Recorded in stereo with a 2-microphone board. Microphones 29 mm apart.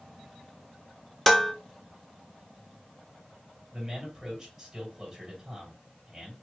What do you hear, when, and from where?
1.3 s dishes clattering: 10° left (ahead or behind), 0.5 m
3.7 s a man speaking: 10° right (ahead or behind), 2.5 m